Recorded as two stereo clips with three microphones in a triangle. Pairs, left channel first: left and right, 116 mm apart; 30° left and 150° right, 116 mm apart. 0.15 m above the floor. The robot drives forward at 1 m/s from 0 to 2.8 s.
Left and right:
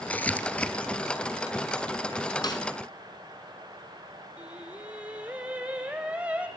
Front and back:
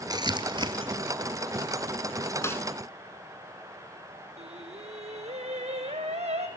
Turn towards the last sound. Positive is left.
turn(degrees=-170)